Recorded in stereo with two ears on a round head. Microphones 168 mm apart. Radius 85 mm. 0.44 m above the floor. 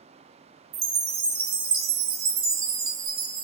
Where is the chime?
50° right (ahead or behind), 0.7 m.